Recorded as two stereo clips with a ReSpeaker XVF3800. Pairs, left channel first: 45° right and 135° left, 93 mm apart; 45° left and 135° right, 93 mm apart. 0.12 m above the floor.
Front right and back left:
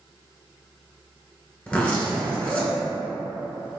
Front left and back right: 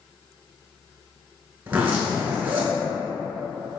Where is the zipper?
95° right, 0.9 m.